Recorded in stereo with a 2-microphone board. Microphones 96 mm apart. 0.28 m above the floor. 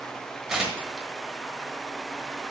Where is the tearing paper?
5° right (ahead or behind), 1.3 m.